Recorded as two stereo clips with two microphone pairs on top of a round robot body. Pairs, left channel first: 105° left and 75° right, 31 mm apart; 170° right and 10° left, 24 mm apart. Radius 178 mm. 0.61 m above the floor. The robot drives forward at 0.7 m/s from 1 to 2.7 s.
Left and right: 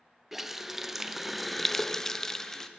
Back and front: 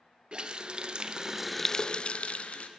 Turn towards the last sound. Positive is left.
turn(degrees=-170)